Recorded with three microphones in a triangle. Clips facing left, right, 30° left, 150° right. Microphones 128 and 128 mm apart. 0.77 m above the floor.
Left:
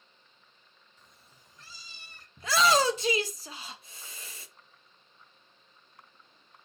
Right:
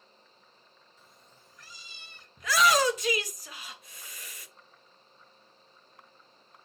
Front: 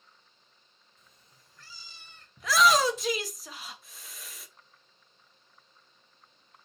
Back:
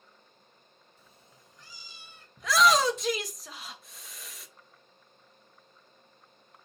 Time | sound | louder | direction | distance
1.0 | a cat meowing | right 1 dB, back 3 dB | 160° right | 0.6 m
2.4 | a shout | even, even | 120° left | 0.9 m